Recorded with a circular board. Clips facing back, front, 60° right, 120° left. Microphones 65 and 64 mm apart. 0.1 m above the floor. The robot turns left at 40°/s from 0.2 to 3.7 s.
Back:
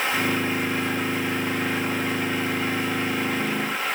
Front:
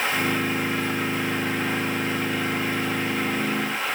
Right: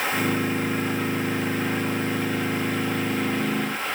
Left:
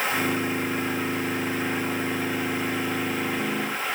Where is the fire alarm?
No fire alarm in this recording.